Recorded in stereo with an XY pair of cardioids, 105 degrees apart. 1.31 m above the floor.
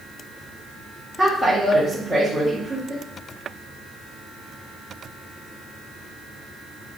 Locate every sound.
1.2 s a woman speaking: 15° left, 1.7 m